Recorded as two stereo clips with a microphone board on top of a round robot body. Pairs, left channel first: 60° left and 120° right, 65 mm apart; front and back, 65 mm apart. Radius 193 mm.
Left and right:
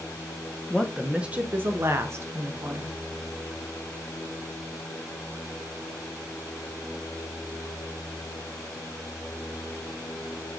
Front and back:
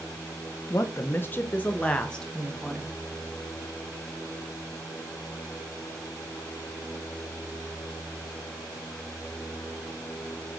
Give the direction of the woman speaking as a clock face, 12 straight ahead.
1 o'clock.